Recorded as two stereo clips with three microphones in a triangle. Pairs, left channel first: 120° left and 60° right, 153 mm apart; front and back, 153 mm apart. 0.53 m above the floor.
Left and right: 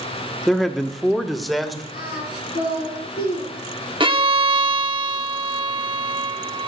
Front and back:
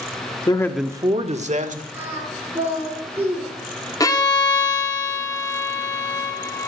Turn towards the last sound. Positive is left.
turn(degrees=-45)